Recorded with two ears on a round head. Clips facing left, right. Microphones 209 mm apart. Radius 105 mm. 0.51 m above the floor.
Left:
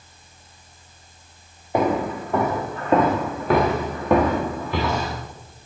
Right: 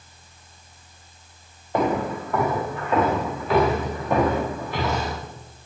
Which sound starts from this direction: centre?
Footsteps, at 1.7 s.